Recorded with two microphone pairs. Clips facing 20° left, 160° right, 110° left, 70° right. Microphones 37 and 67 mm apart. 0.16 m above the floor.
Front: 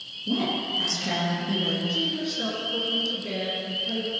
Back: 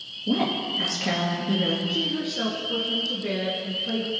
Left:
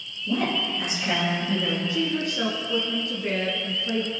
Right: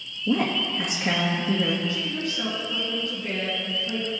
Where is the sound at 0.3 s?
100° right, 3 m.